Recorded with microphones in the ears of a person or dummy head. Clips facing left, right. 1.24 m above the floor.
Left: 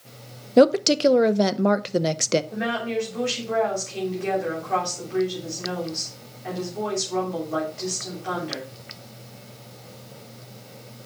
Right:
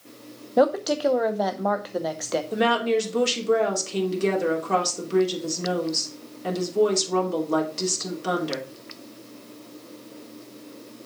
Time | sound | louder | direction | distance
0.6 | a woman speaking | left 4 dB | 40° left (ahead or behind) | 0.6 m
2.5 | a woman speaking | right 5 dB | 55° right (ahead or behind) | 3 m